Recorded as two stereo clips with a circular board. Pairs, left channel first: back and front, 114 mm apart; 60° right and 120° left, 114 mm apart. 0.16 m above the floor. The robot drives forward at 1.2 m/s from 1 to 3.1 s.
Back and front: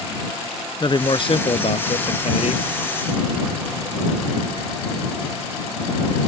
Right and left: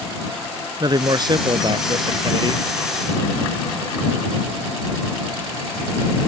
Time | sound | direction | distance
0.8 | a man speaking | 155° left | ?